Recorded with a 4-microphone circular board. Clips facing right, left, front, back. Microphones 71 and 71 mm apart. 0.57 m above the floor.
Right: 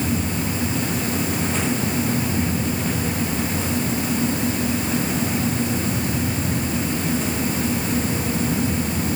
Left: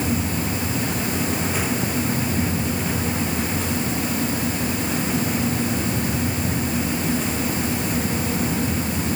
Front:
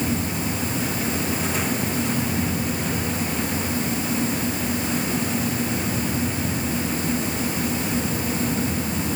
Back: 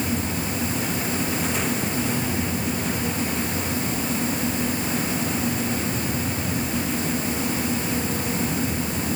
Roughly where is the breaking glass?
No breaking glass in this recording.